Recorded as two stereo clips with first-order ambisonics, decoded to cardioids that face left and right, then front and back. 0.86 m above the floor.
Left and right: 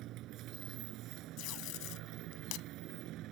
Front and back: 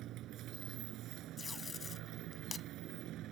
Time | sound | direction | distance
0.0 | a motorcycle | 135° right | ?
1.4 | tape being pulled | 70° left | ?